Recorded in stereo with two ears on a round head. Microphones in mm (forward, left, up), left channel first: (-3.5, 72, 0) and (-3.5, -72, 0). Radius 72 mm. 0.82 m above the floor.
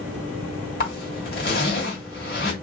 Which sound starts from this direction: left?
A zipper, at 0.8 s.